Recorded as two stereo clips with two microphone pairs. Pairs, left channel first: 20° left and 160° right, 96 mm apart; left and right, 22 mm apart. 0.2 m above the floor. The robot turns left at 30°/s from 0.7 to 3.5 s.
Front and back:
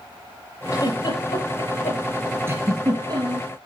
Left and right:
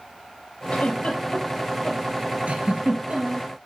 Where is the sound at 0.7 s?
65° left, 6 m; by 2.0 s 25° left, 6 m.